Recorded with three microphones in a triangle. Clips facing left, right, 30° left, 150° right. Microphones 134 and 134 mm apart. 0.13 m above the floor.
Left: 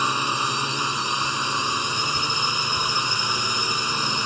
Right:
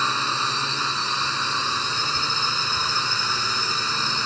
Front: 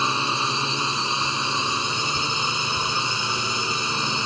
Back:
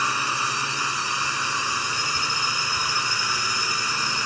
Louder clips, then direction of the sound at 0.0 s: Left 1 dB, front 2 dB; 40° left.